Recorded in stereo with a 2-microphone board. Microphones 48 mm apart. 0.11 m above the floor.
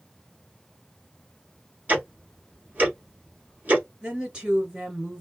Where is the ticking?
35° right (ahead or behind), 1.4 m.